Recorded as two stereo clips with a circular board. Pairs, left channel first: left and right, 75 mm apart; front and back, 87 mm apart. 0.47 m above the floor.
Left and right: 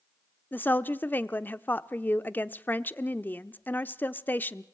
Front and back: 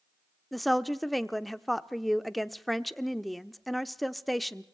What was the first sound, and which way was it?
A woman speaking, 90° left.